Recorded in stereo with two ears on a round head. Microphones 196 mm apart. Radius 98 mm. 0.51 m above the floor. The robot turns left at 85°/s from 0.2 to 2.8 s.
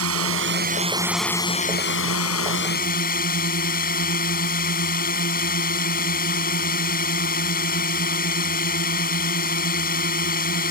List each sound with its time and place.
0.0 s a drone: 95° right; by 10.7 s 45° left